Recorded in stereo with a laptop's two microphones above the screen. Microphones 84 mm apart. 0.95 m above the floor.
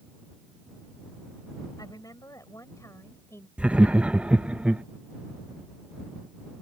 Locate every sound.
1.8 s a woman speaking: 45° left (ahead or behind); by 3.5 s 30° left (ahead or behind)
3.6 s laughter: 15° right (ahead or behind)